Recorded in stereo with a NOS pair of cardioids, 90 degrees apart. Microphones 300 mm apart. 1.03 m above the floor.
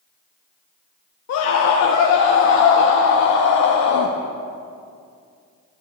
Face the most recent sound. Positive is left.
turn(degrees=65)